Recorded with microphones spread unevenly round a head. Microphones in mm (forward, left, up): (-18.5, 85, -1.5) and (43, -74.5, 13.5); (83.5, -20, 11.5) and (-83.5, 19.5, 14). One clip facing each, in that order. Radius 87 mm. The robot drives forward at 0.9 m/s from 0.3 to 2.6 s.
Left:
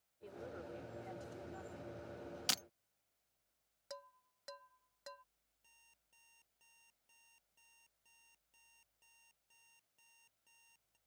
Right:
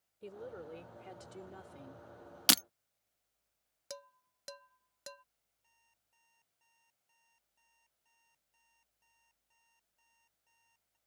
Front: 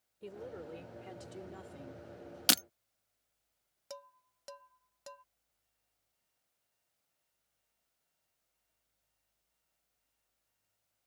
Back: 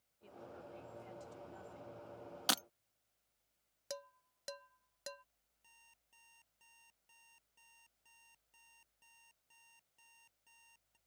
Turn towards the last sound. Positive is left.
turn(degrees=160)